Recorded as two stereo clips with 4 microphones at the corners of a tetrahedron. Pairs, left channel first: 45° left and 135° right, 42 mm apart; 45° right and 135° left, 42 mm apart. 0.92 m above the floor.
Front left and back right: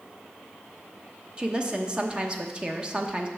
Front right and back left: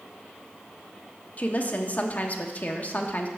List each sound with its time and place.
1.4 s a woman speaking: 75° right, 1.0 m